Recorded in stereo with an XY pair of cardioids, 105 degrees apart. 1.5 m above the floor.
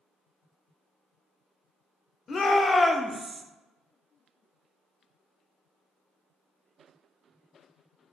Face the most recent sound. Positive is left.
turn(degrees=-35)